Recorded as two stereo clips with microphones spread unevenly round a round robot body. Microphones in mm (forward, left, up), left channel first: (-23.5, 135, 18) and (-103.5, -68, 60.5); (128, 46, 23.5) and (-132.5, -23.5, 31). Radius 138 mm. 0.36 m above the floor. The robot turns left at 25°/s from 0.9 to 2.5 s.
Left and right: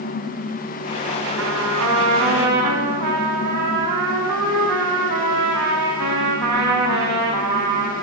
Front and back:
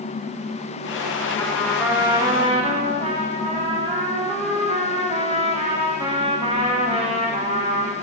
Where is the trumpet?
65° right, 5 m; by 7.9 s 95° right, 5 m.